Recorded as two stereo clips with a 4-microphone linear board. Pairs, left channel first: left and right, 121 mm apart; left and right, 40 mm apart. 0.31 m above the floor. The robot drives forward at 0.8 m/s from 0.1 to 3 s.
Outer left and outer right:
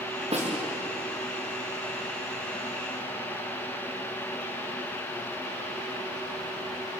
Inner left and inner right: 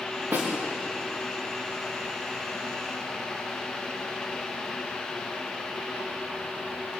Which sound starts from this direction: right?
A snare drum, at 0.3 s.